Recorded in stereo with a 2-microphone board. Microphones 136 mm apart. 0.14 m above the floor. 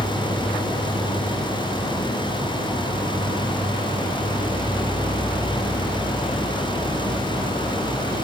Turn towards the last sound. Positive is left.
turn(degrees=-80)